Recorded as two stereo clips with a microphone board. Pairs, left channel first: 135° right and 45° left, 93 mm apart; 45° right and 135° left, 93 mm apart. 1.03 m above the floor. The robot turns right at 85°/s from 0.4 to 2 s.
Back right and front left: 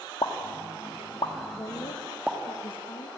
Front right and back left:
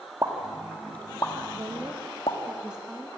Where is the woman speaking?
175° left, 1.5 m; by 3.1 s 145° right, 1.5 m.